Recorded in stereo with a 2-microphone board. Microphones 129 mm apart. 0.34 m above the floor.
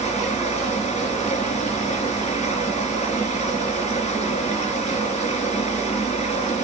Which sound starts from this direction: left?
Running water, at 0.0 s.